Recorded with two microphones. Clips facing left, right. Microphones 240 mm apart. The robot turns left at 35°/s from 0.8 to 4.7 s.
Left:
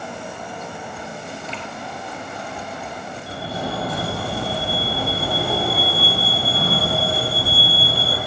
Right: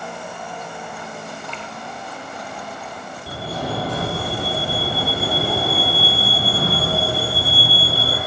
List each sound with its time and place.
1.5 s dripping: 20° left (ahead or behind), 4 m; by 1.7 s 25° left (ahead or behind), 4 m
3.3 s a fire alarm: 85° right, 7 m; by 8.2 s 135° right, 7 m